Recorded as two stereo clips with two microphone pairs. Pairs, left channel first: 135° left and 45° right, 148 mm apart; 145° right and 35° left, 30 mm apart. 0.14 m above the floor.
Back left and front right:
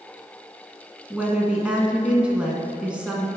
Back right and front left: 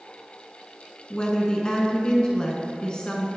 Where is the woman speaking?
120° right, 1.2 m.